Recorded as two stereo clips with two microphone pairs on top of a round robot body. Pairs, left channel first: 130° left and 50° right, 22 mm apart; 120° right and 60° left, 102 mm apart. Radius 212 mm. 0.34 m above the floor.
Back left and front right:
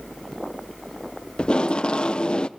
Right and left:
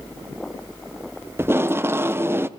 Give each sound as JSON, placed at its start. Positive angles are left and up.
{"t": 1.4, "sound": "tape being pulled", "azimuth_deg": 110, "distance_m": 0.9}